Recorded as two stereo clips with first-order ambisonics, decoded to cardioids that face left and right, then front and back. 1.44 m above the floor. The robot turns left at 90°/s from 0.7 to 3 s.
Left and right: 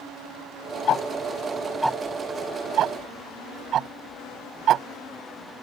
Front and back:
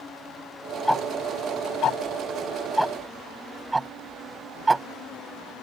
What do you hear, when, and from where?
0.9 s ticking: 85° left; by 4.9 s 105° right